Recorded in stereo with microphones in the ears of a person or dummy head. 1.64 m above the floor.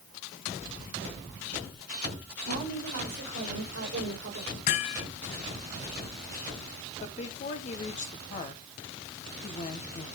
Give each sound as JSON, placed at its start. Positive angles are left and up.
{"t": 2.5, "sound": "a woman speaking", "side_deg": -70, "distance_m": 7.5}
{"t": 4.7, "sound": "hammering", "side_deg": 50, "distance_m": 4.0}
{"t": 7.0, "sound": "a woman speaking", "side_deg": 45, "distance_m": 1.6}